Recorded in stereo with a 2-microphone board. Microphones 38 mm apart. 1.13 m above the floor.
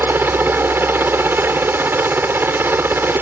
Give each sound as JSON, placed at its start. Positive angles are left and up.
{"t": 0.0, "sound": "a helicopter", "side_deg": -70}